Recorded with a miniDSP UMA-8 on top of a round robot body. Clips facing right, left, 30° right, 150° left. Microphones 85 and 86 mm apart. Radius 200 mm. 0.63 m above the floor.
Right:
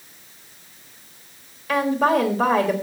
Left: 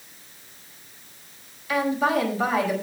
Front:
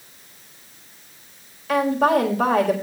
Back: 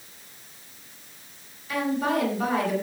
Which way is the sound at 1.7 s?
50° right.